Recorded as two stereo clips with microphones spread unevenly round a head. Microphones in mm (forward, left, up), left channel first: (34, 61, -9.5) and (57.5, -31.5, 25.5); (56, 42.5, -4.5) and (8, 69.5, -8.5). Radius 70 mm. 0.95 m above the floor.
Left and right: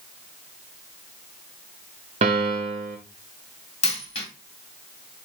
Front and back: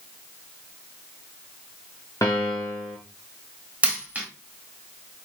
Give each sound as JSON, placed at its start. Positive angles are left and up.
{"t": 2.2, "sound": "a piano", "azimuth_deg": -95, "distance_m": 0.7}
{"t": 3.8, "sound": "a dropped coin", "azimuth_deg": 90, "distance_m": 2.0}